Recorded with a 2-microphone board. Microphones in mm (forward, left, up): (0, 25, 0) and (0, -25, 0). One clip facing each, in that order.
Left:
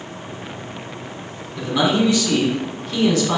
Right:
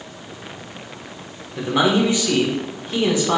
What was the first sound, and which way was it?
A man speaking, 25° right (ahead or behind).